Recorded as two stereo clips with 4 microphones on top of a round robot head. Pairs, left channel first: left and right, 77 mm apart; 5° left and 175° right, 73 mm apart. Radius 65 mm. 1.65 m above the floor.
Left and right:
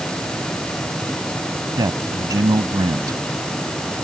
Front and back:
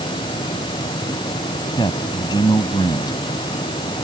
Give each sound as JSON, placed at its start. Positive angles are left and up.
{"t": 1.8, "sound": "a man speaking", "azimuth_deg": -45}